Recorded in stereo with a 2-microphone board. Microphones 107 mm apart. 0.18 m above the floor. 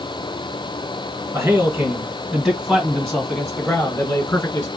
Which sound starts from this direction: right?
A man speaking, at 1.3 s.